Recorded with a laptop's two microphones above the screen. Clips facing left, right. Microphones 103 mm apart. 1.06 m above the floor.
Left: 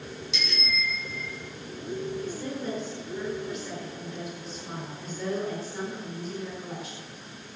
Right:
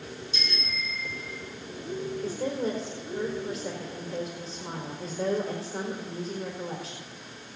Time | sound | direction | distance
0.3 | a bicycle bell | 75° left (ahead or behind) | 3.5 m
2.2 | a woman speaking | 40° right (ahead or behind) | 4.5 m